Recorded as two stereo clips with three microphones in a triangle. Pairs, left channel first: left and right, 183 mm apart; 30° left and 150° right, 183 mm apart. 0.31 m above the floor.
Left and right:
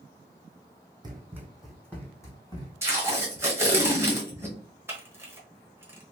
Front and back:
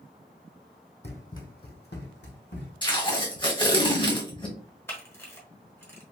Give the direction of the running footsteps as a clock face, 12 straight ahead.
1 o'clock.